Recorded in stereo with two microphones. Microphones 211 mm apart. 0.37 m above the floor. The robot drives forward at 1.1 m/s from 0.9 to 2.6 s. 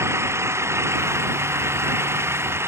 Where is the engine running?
15° right (ahead or behind); by 2.7 s 10° right (ahead or behind).